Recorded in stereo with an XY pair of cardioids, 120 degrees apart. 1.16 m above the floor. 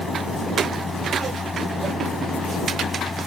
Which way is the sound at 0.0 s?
15° left.